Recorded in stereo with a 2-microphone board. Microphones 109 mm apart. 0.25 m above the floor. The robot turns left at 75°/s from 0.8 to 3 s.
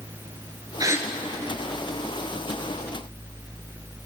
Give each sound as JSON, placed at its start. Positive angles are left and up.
{"t": 0.8, "sound": "a gasp", "side_deg": -40, "distance_m": 1.0}